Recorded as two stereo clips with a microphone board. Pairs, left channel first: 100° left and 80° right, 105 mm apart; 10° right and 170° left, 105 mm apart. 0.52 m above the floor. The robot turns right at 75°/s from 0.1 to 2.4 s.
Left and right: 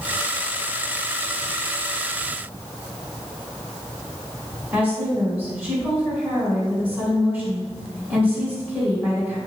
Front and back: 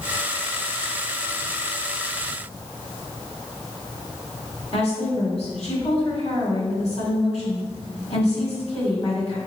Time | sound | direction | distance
4.7 | a woman speaking | 5° right | 1.9 m